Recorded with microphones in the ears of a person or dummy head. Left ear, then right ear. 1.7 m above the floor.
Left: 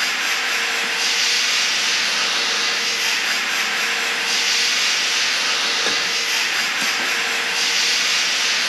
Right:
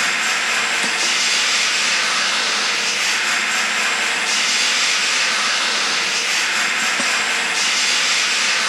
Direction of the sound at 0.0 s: 10° left (ahead or behind).